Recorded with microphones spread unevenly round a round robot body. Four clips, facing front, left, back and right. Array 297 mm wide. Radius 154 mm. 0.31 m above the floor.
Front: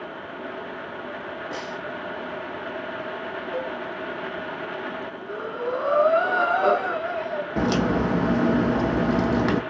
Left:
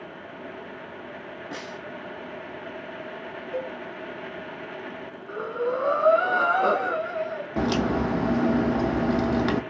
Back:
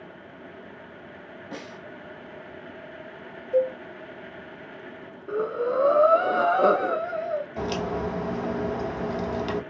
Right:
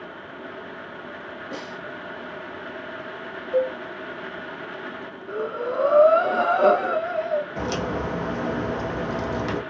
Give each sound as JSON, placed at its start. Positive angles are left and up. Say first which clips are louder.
{"t": 1.5, "sound": "a snare drum", "louder": "right 2 dB, front 3 dB", "azimuth_deg": 5, "distance_m": 1.9}
{"t": 3.5, "sound": "a cowbell", "louder": "right 10 dB, back 9 dB", "azimuth_deg": -155, "distance_m": 1.1}
{"t": 5.3, "sound": "breathing", "louder": "even, back 3 dB", "azimuth_deg": -140, "distance_m": 1.0}
{"t": 7.6, "sound": "a crack", "louder": "left 3 dB, front 6 dB", "azimuth_deg": 25, "distance_m": 0.8}